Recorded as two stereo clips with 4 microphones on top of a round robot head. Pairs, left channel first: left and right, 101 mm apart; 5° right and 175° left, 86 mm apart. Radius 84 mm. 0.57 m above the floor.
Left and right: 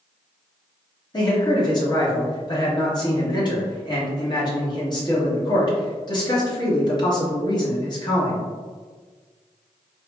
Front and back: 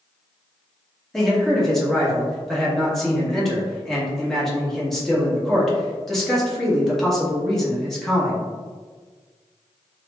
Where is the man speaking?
80° left, 1.1 m.